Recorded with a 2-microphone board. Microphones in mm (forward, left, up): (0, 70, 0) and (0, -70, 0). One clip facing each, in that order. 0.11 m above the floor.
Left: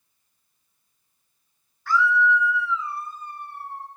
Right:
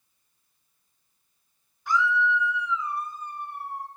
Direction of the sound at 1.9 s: 20° right (ahead or behind).